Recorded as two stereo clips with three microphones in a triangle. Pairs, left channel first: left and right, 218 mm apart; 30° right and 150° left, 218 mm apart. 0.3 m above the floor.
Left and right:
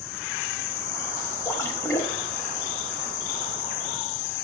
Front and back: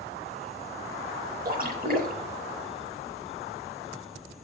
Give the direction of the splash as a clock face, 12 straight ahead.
7 o'clock.